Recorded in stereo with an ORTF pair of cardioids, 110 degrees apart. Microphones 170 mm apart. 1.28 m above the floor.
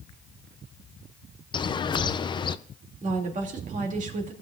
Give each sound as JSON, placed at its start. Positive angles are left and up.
{"t": 1.5, "sound": "a bird", "azimuth_deg": 30, "distance_m": 0.5}
{"t": 3.0, "sound": "a woman speaking", "azimuth_deg": -50, "distance_m": 2.5}